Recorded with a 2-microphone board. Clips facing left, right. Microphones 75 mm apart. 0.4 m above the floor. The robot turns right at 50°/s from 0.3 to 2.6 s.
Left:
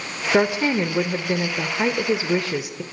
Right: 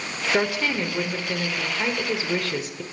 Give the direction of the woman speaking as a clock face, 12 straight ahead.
11 o'clock.